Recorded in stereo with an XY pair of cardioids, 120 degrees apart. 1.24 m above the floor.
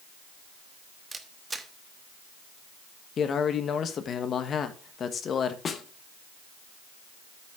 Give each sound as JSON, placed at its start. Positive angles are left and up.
{"t": 1.1, "sound": "a camera shutter", "azimuth_deg": -20, "distance_m": 1.3}
{"t": 3.2, "sound": "a man speaking", "azimuth_deg": 45, "distance_m": 1.5}
{"t": 5.7, "sound": "a snare drum", "azimuth_deg": 40, "distance_m": 1.4}